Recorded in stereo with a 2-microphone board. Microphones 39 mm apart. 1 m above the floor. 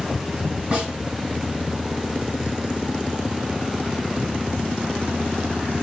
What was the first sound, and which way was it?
A snare drum, 35° right (ahead or behind).